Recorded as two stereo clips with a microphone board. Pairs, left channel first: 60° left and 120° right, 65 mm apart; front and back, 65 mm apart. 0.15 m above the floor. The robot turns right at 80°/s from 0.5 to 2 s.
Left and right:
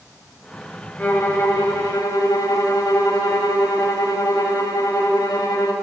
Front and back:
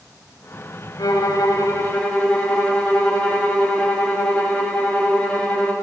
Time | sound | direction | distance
1.0 | a violin | 10° right | 5 m